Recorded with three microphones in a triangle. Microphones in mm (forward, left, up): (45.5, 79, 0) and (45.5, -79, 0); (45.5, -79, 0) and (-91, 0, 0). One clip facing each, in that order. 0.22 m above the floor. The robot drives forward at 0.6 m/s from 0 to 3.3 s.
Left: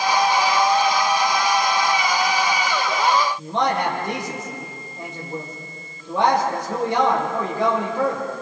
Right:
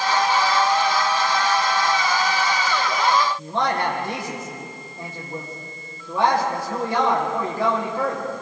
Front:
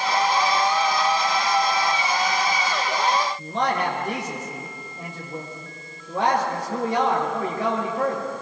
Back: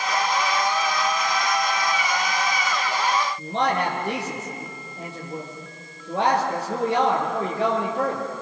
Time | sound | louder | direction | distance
3.4 | a man speaking | left 1 dB, back 1 dB | 160° left | 7 m